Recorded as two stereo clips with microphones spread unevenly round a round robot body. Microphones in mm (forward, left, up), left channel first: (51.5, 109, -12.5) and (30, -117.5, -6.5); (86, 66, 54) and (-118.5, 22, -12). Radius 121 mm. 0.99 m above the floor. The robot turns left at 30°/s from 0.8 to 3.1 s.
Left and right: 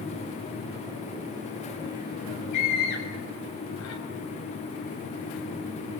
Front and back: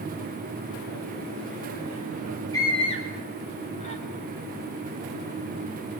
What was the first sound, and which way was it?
A scream, 90° left.